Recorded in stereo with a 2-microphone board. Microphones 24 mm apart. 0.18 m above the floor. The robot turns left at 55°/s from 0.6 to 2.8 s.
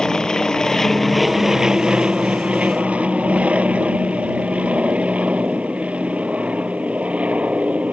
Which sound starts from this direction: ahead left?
An aircraft, at 0.0 s.